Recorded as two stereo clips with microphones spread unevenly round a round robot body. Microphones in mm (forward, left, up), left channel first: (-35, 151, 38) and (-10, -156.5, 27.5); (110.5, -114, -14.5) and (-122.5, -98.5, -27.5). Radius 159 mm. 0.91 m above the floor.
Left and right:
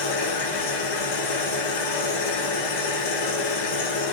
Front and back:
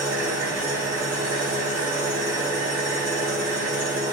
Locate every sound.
0.0 s an engine running: 95° left, 1.4 m